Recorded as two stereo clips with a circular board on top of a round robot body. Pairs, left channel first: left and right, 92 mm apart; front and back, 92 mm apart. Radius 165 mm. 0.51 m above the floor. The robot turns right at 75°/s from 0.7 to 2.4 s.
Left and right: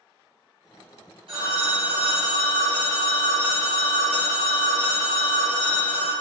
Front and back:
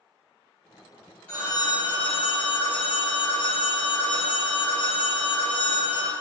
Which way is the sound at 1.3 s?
70° right.